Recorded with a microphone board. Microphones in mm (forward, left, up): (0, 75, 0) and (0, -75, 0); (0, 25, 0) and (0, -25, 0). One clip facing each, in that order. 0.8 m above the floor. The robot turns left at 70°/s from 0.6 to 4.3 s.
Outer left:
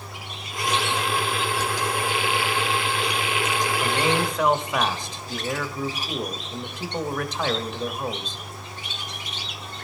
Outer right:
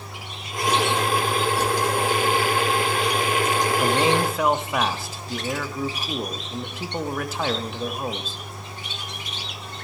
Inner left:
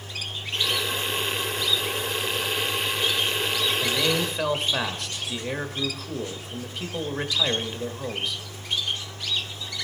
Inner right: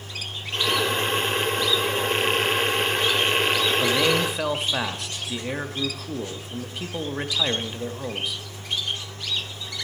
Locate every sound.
3.8 s a man speaking: 140° right, 1.1 m; by 8.4 s 175° right, 1.1 m